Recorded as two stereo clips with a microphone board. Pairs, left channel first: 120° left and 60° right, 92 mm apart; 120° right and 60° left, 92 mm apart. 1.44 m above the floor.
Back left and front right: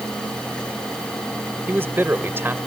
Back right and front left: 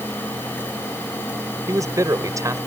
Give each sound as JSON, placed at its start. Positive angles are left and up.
{"t": 1.7, "sound": "a man speaking", "azimuth_deg": 5}